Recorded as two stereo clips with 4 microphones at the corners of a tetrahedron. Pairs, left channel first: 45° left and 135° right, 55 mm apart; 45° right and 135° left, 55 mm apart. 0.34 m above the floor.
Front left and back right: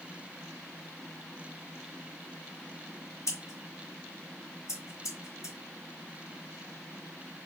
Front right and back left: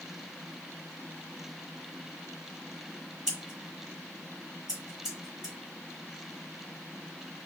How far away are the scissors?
About 1.6 m.